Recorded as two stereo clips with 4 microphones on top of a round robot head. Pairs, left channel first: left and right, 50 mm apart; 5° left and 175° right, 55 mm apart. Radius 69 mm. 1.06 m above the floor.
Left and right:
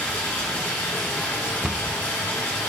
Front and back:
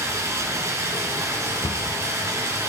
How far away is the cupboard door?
About 0.8 m.